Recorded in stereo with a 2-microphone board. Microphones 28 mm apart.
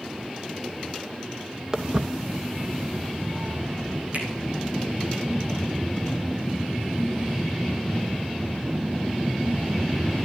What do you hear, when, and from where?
1.7 s footsteps: 25° right (ahead or behind), 0.9 m; by 4.0 s 60° right (ahead or behind), 2.5 m
4.1 s a finger snap: 60° right (ahead or behind), 3 m